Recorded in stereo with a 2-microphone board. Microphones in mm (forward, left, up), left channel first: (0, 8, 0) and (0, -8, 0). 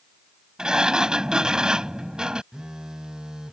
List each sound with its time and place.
0.6 s a sliding door: 55° right (ahead or behind)
2.5 s a phone buzzing: 50° right (ahead or behind)